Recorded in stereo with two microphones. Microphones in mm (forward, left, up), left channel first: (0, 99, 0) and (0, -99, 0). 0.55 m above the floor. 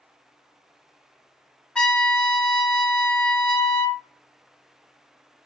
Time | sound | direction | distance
1.8 | a trumpet | 5° left (ahead or behind) | 0.6 m